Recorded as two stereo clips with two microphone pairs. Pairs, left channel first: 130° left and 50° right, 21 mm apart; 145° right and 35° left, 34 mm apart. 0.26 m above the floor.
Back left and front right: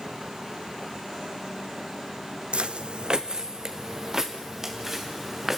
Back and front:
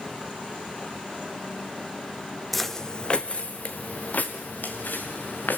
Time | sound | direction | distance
2.5 | footsteps | 60° right | 0.9 m